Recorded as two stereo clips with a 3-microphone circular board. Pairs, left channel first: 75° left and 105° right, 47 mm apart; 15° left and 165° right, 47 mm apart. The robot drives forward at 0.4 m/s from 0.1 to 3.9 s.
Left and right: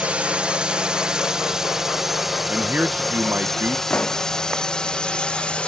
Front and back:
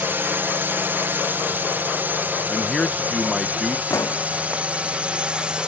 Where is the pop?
15° left.